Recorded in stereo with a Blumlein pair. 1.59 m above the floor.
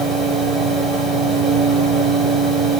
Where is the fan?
5° right, 1.4 m.